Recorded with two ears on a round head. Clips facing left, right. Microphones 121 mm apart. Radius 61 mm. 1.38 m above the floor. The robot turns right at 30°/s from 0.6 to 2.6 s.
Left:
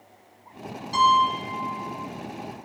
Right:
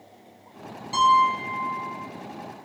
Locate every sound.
0.9 s a piano: 20° right, 7 m; by 1.9 s 10° left, 7 m